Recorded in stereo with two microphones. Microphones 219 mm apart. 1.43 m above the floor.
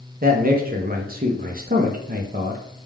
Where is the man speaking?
40° right (ahead or behind), 0.6 m.